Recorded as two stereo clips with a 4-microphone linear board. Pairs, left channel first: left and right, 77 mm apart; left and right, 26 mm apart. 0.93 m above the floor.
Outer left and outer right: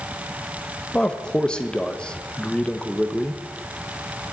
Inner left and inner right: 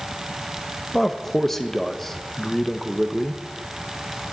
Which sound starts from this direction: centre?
A man speaking, at 0.9 s.